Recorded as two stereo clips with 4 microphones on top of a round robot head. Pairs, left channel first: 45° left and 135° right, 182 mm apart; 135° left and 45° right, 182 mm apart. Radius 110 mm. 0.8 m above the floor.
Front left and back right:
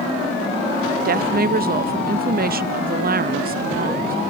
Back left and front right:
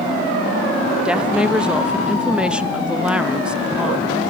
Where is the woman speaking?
130° right, 0.6 m.